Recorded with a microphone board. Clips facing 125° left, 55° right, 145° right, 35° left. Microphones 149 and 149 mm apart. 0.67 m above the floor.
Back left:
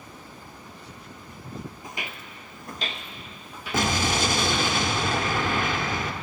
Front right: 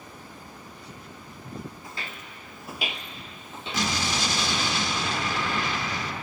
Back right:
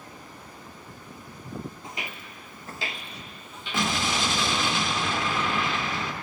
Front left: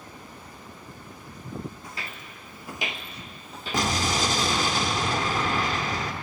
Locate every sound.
1.8 s footsteps: 175° left, 0.7 m; by 4.7 s straight ahead, 1.7 m
3.7 s an explosion: 85° left, 0.9 m